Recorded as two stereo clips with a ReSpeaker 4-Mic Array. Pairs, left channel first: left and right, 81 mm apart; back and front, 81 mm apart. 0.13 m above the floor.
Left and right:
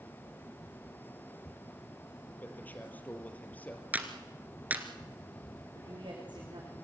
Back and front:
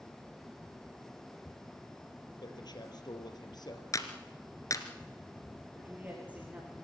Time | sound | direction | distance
2.4 | a man speaking | 160° left | 4 m
3.9 | a clap | 155° right | 2 m
5.8 | a woman speaking | 70° right | 9.5 m